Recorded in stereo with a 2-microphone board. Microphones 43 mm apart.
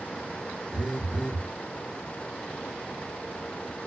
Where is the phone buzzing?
5° left (ahead or behind), 1.5 m.